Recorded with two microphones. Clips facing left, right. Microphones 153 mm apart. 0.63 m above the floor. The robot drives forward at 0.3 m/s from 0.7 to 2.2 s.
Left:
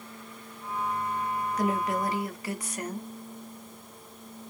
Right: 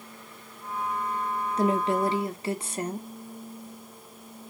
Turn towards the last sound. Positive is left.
turn(degrees=-25)  # may be behind; listen again after turning